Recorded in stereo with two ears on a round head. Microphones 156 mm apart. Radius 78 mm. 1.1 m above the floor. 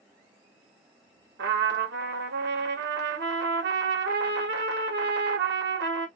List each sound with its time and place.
1.4 s a trumpet: 65° right (ahead or behind), 0.7 m